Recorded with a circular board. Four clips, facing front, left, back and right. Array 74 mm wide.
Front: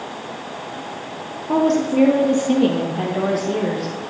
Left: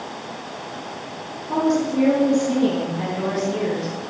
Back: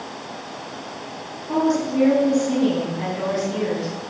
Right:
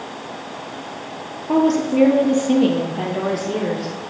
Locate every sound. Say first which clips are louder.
1.5 s a woman speaking: right 3 dB, front 3 dB; 60° right, 2 m; by 4.0 s 40° right, 3.5 m